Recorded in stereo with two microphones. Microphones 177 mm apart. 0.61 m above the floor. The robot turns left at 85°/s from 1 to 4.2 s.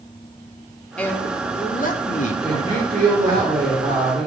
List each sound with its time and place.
1.0 s a man speaking: 170° left, 1.7 m; by 3.4 s 35° right, 1.7 m
2.4 s a woman speaking: 5° left, 6.5 m; by 4.3 s 150° right, 6.5 m